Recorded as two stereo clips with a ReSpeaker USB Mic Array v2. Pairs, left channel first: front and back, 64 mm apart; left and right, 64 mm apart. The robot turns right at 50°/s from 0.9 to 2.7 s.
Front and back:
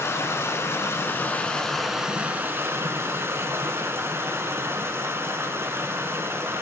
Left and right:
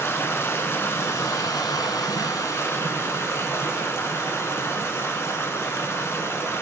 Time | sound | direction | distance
0.0 | running water | 45° left | 0.8 m